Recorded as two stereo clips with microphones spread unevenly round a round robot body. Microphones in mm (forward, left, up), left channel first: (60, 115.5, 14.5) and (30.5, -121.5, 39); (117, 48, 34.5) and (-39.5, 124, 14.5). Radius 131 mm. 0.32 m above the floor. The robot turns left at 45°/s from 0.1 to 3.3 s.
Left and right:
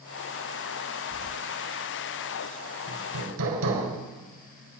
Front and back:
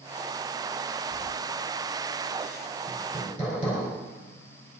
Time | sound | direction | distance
1.1 | keys jangling | 55° right | 1.1 m
2.9 | hammering | 80° right | 3.5 m